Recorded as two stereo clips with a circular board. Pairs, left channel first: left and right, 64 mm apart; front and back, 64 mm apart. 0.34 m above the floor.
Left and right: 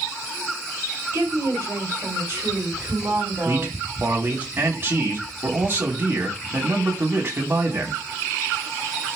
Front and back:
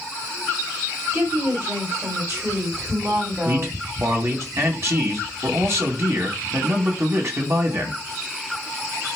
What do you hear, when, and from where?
1.1 s a woman speaking: 140° right, 4 m; by 4.5 s 150° right, 2.5 m
3.5 s a man speaking: 140° right, 2 m